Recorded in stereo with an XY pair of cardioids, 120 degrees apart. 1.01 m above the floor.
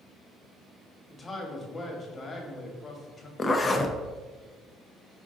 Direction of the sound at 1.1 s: 25° left.